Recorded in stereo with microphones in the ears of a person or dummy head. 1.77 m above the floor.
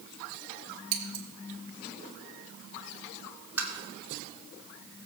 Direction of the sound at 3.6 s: 10° right (ahead or behind).